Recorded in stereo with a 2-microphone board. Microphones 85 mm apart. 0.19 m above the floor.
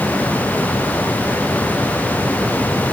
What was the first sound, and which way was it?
Only background noise.